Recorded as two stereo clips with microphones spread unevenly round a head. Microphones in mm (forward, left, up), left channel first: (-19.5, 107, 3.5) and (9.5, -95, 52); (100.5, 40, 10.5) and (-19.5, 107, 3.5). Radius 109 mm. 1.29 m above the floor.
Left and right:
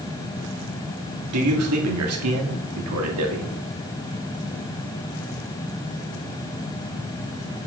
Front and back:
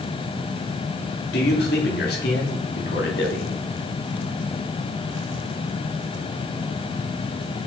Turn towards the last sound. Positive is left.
turn(degrees=-65)